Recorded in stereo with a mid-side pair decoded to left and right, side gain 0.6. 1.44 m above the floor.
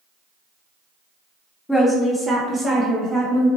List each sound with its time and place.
1.7 s a woman speaking: 10° left, 0.8 m; by 3.5 s 45° right, 1.9 m